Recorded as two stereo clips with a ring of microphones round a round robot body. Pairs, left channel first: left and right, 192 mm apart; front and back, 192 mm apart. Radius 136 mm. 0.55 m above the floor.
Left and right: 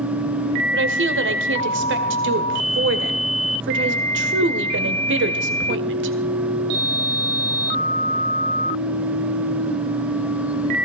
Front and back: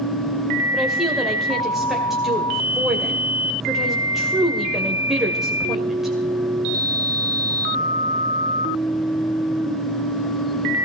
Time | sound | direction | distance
0.7 | a woman speaking | 90° right | 1.9 m